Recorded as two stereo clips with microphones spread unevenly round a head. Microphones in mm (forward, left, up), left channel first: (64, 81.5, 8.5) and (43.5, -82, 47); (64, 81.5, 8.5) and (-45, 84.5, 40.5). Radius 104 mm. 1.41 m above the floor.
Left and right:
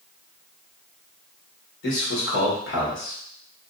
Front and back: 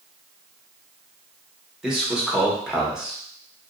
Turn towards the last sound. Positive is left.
turn(degrees=95)